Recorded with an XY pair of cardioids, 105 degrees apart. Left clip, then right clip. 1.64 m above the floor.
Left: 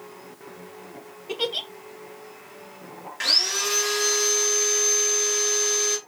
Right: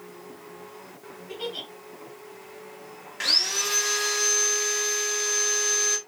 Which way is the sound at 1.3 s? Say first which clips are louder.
Left 7 dB; 70° left.